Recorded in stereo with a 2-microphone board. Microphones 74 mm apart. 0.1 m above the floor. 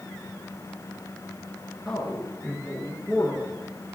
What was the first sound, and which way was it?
A man speaking, 10° left (ahead or behind).